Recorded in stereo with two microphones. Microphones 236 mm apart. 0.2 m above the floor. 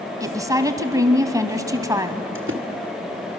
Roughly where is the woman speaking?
Centre.